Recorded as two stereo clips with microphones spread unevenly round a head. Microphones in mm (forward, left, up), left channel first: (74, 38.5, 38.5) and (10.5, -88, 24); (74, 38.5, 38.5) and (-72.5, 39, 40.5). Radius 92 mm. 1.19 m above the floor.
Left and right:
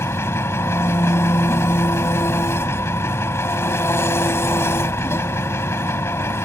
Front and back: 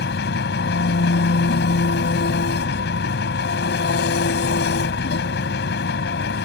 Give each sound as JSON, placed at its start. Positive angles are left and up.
{"t": 0.0, "sound": "an engine running", "azimuth_deg": -5}